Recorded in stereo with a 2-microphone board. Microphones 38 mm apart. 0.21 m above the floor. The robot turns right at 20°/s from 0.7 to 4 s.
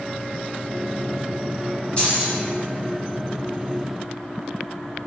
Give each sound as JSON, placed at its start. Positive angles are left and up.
{"t": 2.0, "sound": "keys jangling", "side_deg": 25, "distance_m": 1.5}